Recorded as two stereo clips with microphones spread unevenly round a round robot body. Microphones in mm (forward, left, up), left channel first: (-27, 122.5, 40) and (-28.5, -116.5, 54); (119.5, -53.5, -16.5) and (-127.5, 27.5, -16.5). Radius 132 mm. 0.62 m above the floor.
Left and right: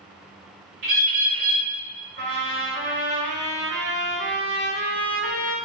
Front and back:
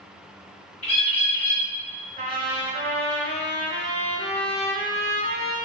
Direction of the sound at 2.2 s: 130° right.